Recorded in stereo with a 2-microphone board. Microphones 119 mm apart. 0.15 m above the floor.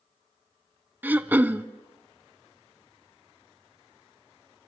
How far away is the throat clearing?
About 0.5 m.